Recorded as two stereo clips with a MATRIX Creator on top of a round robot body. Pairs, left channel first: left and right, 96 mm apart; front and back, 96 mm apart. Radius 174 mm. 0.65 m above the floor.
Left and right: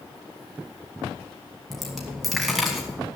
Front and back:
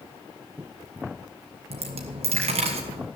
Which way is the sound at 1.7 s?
Straight behind.